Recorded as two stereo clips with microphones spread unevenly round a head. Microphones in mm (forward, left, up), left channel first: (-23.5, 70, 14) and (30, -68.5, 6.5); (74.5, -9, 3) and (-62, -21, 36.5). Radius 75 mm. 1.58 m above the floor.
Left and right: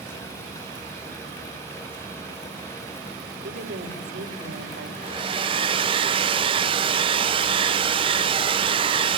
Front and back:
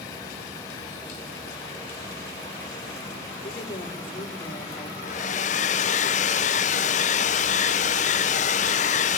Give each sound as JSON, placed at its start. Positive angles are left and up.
{"t": 3.4, "sound": "a woman speaking", "azimuth_deg": -55, "distance_m": 6.0}
{"t": 5.0, "sound": "a hair dryer", "azimuth_deg": -25, "distance_m": 0.6}